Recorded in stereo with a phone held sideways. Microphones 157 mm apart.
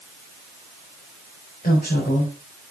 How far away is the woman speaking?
About 5 m.